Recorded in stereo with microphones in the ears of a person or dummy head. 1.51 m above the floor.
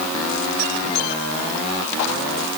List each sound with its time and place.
Only background noise.